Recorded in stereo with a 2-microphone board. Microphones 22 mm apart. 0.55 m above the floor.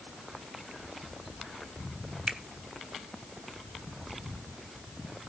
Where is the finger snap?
45° right (ahead or behind), 0.9 m.